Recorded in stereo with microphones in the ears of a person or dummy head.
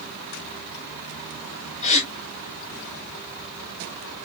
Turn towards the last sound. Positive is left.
turn(degrees=40)  # may be behind; listen again after turning